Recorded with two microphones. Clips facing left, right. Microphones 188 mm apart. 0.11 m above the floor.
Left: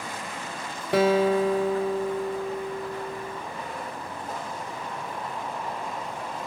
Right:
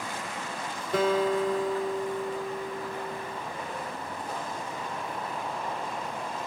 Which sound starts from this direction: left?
A guitar, at 0.9 s.